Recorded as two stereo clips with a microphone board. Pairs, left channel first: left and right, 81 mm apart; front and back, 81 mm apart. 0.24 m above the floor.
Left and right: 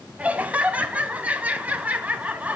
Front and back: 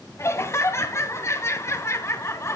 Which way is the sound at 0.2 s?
25° right.